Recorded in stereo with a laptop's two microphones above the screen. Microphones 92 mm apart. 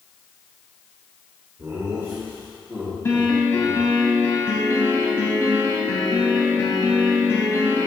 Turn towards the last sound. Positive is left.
turn(degrees=30)  # may be behind; listen again after turning